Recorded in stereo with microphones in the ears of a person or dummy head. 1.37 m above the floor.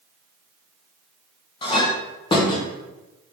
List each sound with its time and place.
1.6 s a clink: 25° left (ahead or behind), 0.6 m